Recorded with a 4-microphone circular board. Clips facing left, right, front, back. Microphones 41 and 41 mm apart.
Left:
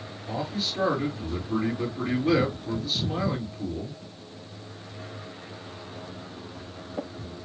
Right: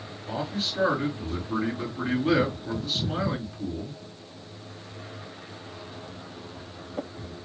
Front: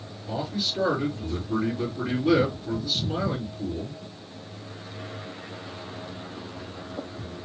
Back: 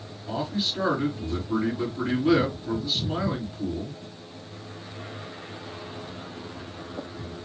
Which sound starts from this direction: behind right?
A man speaking, at 0.3 s.